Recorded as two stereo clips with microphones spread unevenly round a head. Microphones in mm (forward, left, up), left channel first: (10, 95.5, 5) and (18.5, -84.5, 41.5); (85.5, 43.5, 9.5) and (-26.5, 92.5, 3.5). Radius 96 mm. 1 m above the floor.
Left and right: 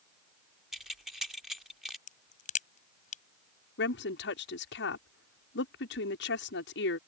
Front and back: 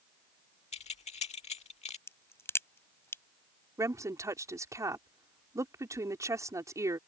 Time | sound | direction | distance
0.7 | keys jangling | straight ahead | ?
2.1 | a crack | 45° left | ?
3.8 | a woman speaking | 95° left | ?